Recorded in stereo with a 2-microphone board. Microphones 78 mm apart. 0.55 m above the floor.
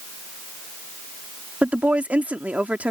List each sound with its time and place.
1.6 s a woman speaking: 15° right (ahead or behind)